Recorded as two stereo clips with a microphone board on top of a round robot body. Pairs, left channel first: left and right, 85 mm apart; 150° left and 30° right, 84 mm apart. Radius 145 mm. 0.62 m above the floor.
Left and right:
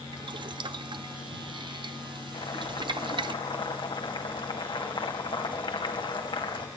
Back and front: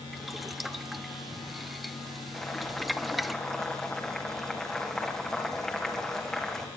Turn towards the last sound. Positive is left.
turn(degrees=65)